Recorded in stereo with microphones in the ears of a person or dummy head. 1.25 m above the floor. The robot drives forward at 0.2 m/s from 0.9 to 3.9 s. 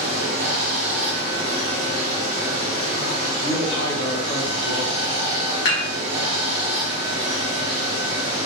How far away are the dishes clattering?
About 1.4 m.